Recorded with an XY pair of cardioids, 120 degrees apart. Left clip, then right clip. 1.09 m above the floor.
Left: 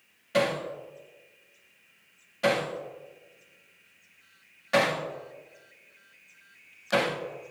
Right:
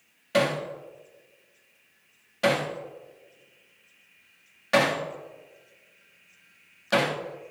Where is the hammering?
25° right, 2.0 m.